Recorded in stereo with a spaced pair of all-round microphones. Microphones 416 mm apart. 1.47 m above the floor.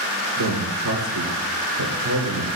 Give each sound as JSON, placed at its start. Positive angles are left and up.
{"t": 0.4, "sound": "a man speaking", "side_deg": -50, "distance_m": 4.5}